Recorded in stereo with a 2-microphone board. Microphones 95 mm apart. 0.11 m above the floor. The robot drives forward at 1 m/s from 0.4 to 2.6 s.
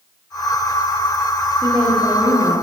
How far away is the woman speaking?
About 2 m.